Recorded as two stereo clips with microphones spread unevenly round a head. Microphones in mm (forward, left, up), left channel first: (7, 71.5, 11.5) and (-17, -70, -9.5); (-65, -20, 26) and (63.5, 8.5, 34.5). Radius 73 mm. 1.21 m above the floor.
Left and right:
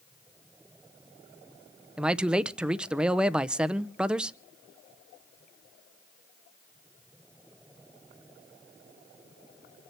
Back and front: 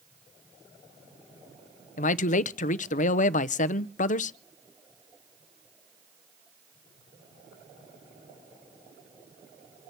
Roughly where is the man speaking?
Behind.